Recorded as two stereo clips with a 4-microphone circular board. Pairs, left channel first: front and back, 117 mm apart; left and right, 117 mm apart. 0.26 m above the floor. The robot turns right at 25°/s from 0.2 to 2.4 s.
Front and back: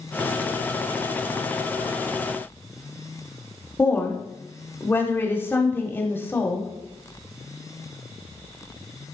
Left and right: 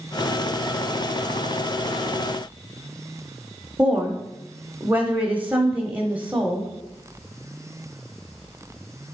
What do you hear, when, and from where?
3.8 s a woman speaking: 35° right, 0.9 m